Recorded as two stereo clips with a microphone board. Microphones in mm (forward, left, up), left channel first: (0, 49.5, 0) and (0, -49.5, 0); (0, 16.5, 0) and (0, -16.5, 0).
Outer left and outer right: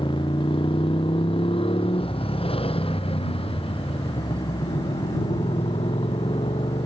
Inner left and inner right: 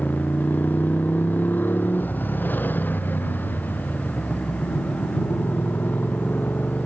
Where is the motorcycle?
60° left (ahead or behind); by 6.9 s 75° left (ahead or behind).